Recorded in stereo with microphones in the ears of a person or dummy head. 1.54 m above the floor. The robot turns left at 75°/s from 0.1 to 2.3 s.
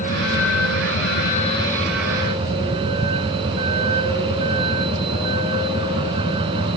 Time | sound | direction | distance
0.0 | a vehicle | 135° left | ?